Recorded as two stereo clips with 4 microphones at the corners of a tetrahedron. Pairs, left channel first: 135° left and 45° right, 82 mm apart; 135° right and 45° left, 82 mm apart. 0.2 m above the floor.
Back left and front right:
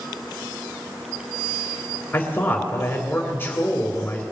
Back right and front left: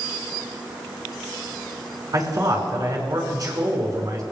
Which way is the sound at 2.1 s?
75° left.